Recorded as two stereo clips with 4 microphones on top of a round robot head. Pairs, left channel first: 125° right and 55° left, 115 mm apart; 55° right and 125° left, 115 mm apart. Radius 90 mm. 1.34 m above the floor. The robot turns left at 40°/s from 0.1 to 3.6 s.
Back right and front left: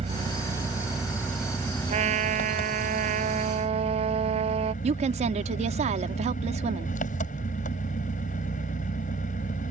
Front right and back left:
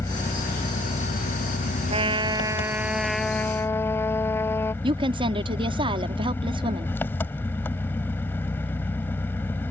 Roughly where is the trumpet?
Left.